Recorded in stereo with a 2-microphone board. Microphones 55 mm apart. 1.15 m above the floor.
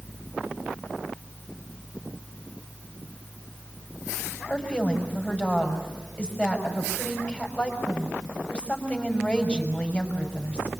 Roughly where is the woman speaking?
Left.